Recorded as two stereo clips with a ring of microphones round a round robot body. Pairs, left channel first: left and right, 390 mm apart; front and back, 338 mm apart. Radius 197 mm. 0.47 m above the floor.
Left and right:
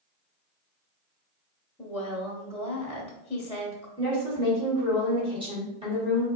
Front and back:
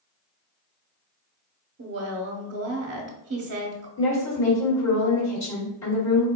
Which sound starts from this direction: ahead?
A woman speaking, at 4.0 s.